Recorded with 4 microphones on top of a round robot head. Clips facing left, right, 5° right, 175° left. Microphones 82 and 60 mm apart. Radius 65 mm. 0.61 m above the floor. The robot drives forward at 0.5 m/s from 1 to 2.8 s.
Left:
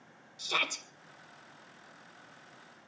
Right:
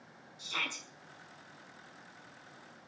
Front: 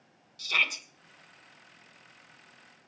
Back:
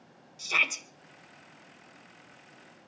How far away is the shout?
About 2.5 m.